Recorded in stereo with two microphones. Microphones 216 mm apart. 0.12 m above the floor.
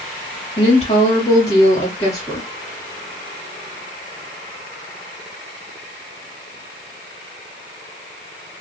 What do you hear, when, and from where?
0.6 s a woman speaking: 30° left (ahead or behind), 2.0 m